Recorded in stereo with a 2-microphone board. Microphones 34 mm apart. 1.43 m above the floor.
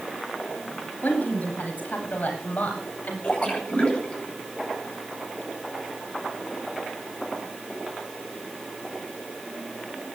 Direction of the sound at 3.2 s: 40° left (ahead or behind).